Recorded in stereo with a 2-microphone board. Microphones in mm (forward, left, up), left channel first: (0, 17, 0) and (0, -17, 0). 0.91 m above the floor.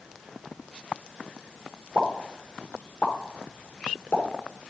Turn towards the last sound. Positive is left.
turn(degrees=70)  # may be behind; listen again after turning